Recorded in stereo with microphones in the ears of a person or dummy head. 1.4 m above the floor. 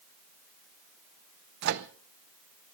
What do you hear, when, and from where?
1.6 s a microwave: 60° right (ahead or behind), 0.9 m